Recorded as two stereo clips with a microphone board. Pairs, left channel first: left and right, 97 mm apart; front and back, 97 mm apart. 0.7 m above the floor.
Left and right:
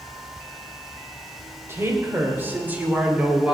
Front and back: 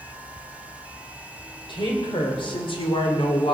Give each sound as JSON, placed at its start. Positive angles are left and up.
{"t": 1.7, "sound": "a woman speaking", "azimuth_deg": -25, "distance_m": 3.0}